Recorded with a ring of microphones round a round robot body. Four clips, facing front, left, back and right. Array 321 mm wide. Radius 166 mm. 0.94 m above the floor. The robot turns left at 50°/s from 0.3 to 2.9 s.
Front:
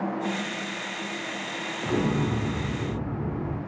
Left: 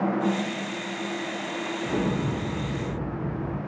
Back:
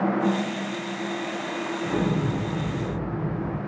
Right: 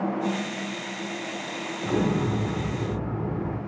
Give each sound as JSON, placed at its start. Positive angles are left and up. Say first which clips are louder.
{"t": 1.8, "sound": "an explosion", "louder": "right 3 dB, front 1 dB", "azimuth_deg": -25, "distance_m": 0.6}